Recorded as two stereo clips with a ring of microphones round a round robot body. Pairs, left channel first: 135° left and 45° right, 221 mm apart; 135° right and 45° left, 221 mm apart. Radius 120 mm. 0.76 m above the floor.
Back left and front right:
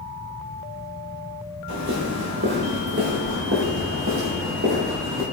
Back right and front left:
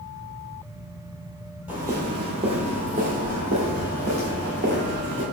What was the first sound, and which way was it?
Footsteps, 35° right.